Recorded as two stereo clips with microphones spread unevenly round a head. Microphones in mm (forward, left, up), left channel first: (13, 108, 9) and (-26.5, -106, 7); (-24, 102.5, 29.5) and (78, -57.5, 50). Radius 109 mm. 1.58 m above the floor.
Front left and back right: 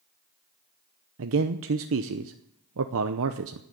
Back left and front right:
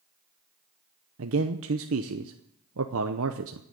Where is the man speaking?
75° right, 0.7 m.